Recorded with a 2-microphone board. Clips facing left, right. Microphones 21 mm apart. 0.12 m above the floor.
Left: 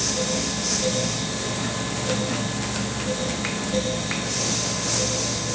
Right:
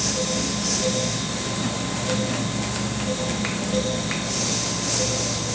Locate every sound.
Only background noise.